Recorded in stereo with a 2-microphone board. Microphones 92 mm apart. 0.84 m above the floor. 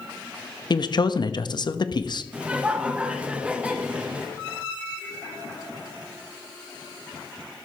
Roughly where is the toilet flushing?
I don't hear a toilet flushing.